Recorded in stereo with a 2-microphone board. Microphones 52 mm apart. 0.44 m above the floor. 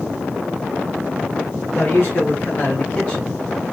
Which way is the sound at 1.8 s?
45° left (ahead or behind).